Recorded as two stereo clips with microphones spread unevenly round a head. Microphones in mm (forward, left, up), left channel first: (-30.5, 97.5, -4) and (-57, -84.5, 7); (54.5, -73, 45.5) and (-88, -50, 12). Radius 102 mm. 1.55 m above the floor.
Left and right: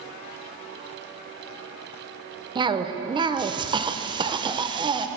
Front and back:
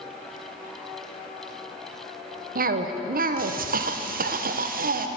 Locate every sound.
2.5 s a cough: 160° right, 0.8 m